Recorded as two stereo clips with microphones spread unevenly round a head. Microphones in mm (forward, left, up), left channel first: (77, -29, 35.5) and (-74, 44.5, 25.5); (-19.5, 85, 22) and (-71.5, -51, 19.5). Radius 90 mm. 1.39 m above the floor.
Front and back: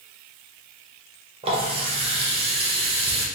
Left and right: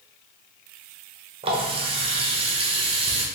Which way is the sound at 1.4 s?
150° right.